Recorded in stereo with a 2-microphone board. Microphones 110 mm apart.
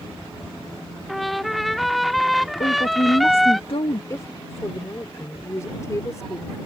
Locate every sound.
1.1 s a trumpet: centre (ahead or behind)
2.6 s a woman speaking: 65° left (ahead or behind)
4.1 s a woman speaking: 30° left (ahead or behind)